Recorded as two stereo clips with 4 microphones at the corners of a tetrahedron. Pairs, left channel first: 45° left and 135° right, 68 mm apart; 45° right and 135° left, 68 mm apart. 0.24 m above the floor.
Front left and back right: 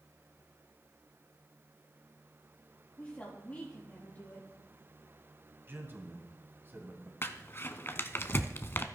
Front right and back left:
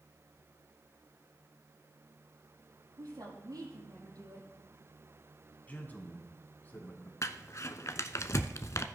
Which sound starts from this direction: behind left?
A woman speaking, at 3.0 s.